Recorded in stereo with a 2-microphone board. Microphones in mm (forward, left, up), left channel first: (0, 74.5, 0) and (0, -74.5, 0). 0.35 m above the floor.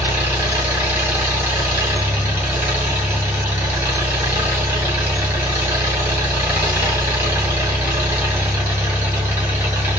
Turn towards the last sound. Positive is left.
turn(degrees=-10)  # may be behind; listen again after turning